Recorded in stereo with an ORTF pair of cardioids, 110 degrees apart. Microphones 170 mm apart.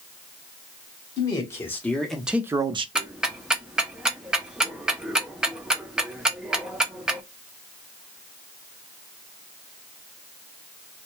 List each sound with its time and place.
1.2 s a man speaking: 20° left, 1.1 m; by 2.9 s 35° right, 0.5 m
3.0 s ticking: 5° right, 0.6 m